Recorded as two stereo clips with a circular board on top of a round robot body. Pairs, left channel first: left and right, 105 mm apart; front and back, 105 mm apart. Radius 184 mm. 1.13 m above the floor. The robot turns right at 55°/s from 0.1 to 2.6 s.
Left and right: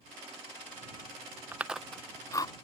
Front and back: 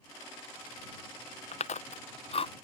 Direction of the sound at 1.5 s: 15° right.